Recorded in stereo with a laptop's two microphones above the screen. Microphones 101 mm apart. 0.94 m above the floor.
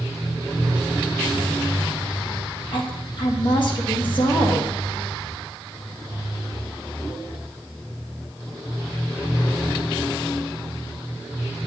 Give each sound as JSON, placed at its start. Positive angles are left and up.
{"t": 2.7, "sound": "a woman speaking", "side_deg": 55, "distance_m": 1.7}